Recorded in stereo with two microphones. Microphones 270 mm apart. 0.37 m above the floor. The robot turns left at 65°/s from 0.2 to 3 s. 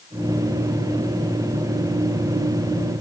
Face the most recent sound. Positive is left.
No sound to turn to.